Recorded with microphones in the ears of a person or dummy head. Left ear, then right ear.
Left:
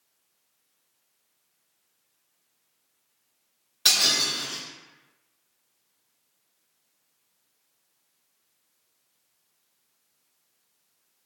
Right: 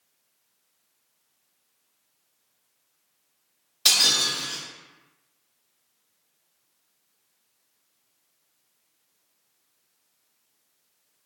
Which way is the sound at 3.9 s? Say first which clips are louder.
Right 1 dB; centre (ahead or behind).